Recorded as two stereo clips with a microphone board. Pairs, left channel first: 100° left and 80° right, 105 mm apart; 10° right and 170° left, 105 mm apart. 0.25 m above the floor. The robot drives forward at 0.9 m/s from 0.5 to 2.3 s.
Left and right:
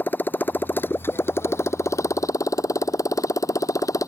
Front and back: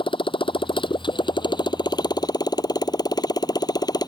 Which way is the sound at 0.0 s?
25° left.